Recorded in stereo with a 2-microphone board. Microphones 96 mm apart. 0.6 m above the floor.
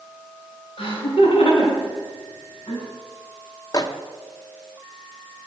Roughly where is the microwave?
Left.